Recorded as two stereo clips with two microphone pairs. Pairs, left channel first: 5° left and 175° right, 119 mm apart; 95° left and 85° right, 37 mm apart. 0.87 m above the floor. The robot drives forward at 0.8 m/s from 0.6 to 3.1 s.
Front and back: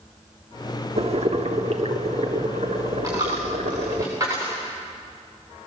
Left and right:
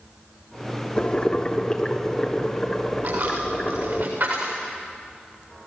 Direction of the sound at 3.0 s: 110° right.